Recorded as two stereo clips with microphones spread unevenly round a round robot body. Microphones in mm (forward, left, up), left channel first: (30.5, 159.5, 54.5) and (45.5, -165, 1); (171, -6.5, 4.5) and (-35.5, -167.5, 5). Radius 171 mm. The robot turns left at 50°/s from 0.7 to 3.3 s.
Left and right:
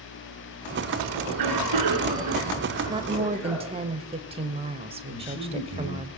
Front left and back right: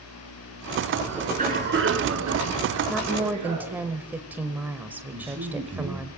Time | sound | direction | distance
1.2 | a cough | 70° right | 5 m
2.9 | a woman speaking | 45° right | 1.0 m
5.1 | a man speaking | 150° left | 2.5 m